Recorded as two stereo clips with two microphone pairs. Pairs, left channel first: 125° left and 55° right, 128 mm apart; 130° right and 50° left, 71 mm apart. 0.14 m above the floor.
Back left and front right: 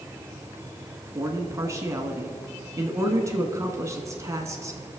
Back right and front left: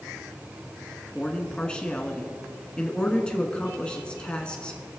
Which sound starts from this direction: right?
A man speaking, at 1.1 s.